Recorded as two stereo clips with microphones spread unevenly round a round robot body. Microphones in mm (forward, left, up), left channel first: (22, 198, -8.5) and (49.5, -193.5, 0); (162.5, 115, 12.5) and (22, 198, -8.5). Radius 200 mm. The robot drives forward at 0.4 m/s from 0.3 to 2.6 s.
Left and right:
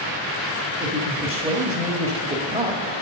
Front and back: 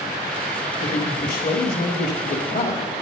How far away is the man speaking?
About 1.7 m.